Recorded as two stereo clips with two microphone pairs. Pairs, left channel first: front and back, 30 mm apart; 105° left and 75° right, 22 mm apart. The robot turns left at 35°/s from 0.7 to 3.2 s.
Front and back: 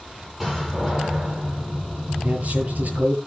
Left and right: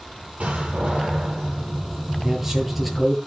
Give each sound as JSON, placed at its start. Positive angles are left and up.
{"t": 0.4, "sound": "a door slam", "azimuth_deg": -95, "distance_m": 9.5}
{"t": 2.2, "sound": "a man speaking", "azimuth_deg": -140, "distance_m": 8.5}